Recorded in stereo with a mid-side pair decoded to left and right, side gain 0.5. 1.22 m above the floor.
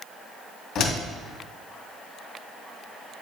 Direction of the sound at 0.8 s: 70° left.